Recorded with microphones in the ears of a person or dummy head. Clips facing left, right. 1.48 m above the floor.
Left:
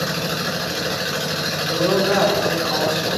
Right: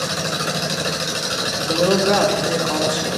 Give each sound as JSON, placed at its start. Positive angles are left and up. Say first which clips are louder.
{"t": 1.6, "sound": "a woman speaking", "louder": "right 2 dB", "side_deg": -60, "distance_m": 3.5}